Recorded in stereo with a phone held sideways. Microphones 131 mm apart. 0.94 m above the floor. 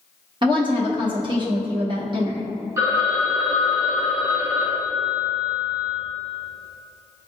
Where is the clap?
No clap in this recording.